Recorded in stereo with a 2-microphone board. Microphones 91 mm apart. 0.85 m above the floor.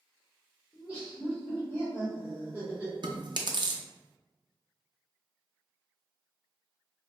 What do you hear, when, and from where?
0.7 s laughter: 15° right (ahead or behind), 1.9 m
3.0 s chewing: 55° right (ahead or behind), 0.7 m